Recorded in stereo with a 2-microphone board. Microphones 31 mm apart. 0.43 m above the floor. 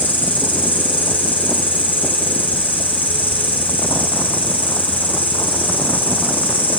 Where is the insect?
65° left (ahead or behind), 7.5 m.